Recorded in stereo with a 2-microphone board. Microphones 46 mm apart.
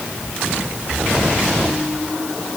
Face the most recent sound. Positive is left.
No sound to turn to.